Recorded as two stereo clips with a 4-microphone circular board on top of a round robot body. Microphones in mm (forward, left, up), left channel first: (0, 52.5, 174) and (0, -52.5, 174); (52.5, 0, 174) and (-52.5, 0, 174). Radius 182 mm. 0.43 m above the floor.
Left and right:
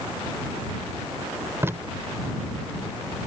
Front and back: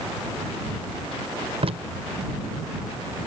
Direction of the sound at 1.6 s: 155° right.